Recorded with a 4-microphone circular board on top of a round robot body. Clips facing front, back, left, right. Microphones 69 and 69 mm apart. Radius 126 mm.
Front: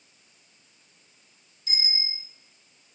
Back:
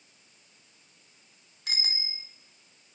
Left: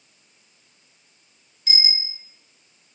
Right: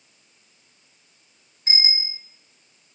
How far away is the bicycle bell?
About 2 m.